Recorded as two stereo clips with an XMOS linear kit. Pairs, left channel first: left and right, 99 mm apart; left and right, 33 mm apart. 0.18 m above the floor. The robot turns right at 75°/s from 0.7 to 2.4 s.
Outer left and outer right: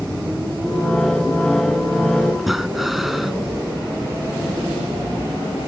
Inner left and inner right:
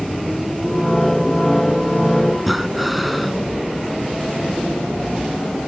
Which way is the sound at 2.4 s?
Centre (ahead or behind).